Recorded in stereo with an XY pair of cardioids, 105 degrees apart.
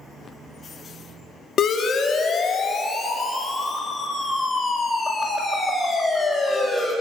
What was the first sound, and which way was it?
A siren, 55° left.